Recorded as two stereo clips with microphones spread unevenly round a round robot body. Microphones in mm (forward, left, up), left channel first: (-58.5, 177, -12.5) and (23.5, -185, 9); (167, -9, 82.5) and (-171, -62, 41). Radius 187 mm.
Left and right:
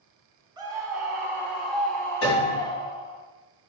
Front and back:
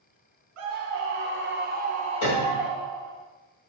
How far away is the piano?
About 2 m.